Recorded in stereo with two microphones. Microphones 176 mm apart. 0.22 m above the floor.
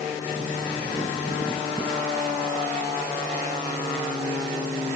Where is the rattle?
I don't hear a rattle.